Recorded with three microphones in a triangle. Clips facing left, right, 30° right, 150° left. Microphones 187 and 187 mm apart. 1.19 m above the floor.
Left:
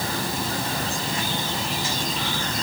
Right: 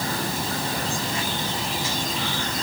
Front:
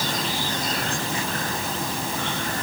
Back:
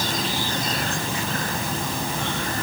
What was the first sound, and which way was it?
Only background noise.